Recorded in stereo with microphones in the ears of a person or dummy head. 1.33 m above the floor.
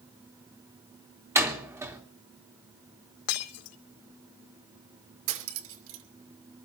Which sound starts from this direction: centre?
A door slam, at 1.4 s.